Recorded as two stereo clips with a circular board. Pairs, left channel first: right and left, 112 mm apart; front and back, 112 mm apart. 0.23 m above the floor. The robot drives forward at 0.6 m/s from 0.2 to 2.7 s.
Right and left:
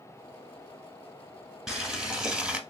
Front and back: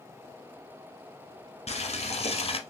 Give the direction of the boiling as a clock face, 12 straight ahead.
12 o'clock.